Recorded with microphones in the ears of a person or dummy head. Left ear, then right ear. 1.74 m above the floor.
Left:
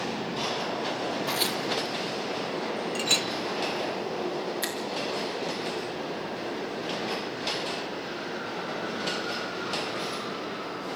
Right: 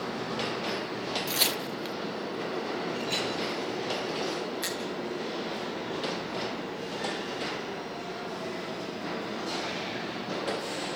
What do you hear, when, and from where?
1.3 s tearing paper: 10° right (ahead or behind), 0.5 m
3.0 s a clink: 45° left (ahead or behind), 1.1 m
4.6 s a finger snap: 20° left (ahead or behind), 3.5 m